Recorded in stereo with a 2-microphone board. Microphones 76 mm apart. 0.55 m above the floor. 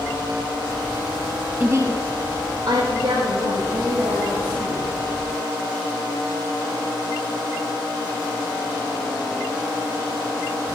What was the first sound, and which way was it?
A woman speaking, 25° right (ahead or behind).